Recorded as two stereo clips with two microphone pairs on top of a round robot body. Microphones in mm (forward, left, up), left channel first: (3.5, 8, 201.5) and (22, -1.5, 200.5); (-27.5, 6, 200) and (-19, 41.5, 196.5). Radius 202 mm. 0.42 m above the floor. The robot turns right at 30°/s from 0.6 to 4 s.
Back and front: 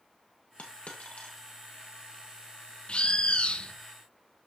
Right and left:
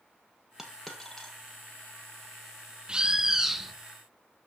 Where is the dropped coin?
160° left, 1.6 m; by 1.4 s 175° right, 1.6 m.